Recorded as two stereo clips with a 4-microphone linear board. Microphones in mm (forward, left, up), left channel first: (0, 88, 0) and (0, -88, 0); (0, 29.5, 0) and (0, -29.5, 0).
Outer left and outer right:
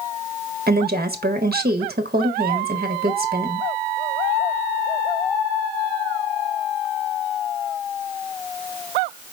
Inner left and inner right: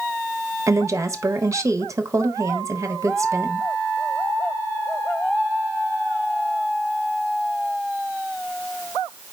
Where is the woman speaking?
60° right (ahead or behind), 1.0 m.